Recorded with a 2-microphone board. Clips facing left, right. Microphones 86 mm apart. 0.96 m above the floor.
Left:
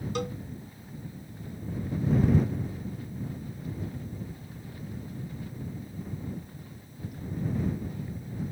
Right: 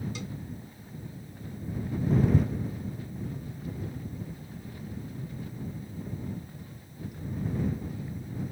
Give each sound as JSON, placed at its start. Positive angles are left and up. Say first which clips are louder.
{"t": 0.1, "sound": "a cowbell", "louder": "left 7 dB", "side_deg": 60}